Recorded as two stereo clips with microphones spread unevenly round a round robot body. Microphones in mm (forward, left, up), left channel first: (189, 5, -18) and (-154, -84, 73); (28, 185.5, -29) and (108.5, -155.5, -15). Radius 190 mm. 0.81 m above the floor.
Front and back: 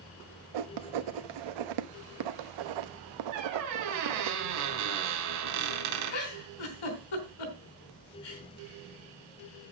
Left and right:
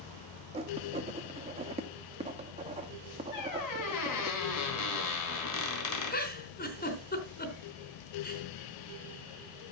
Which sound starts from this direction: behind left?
A squeak, at 3.3 s.